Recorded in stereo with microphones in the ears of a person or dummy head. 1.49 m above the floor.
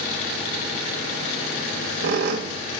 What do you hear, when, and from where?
1.6 s a squeak: 55° right (ahead or behind), 1.0 m